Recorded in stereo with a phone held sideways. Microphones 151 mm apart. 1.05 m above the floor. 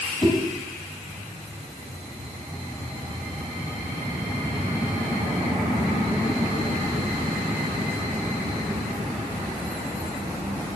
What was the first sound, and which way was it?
A whoosh, 35° left (ahead or behind).